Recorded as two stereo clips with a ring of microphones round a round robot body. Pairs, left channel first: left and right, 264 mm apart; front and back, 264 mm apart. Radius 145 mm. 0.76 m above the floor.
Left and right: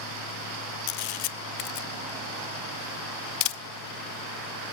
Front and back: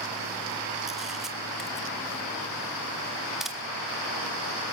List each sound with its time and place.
0.9 s a camera shutter: 90° left, 0.6 m